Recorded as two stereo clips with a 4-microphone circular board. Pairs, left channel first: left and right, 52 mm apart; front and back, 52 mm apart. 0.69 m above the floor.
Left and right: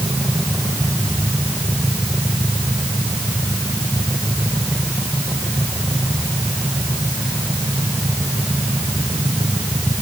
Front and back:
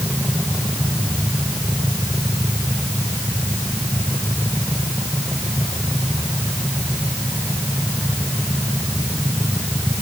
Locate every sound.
Only background noise.